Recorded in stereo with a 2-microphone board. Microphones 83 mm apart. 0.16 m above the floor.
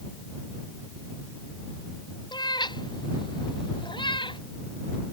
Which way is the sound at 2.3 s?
65° left (ahead or behind).